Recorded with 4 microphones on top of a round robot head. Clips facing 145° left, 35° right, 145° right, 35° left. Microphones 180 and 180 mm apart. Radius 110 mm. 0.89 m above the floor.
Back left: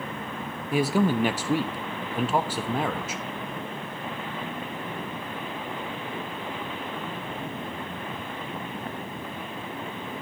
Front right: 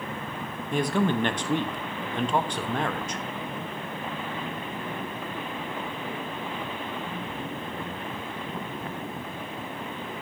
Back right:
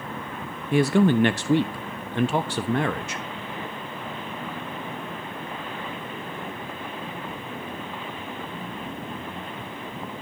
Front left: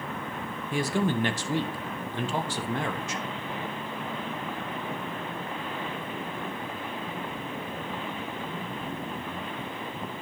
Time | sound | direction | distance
0.7 | a man speaking | 135° right | 1.3 m